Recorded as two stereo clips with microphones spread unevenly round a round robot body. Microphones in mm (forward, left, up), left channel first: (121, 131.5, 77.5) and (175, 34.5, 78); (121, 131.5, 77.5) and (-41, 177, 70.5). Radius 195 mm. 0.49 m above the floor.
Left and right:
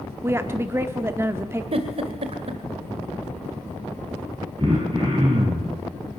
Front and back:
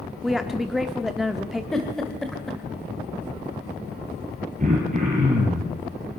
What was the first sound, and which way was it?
A woman speaking, 110° right.